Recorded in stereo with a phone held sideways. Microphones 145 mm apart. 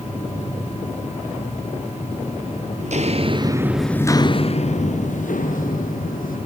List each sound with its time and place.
0.0 s a machine running: 45° left (ahead or behind), 9 m
2.8 s footsteps: 55° right (ahead or behind), 1.5 m; by 6.4 s 70° left (ahead or behind), 3.5 m